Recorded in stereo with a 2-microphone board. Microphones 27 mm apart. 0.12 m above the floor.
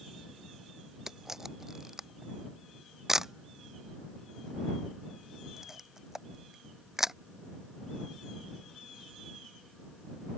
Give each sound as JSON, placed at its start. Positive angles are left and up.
{"t": 1.1, "sound": "a camera shutter", "side_deg": -15}